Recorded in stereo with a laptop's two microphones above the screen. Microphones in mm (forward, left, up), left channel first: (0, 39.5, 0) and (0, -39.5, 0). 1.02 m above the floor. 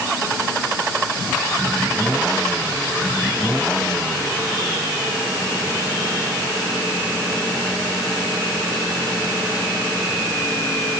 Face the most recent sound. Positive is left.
No sound to turn to.